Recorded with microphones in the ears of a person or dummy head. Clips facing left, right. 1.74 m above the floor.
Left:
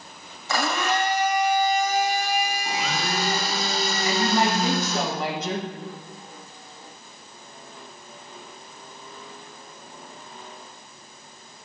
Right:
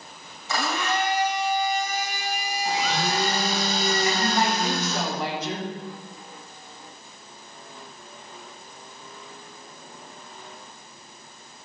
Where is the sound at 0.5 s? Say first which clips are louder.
Left 2 dB; 50° left (ahead or behind), 0.9 m.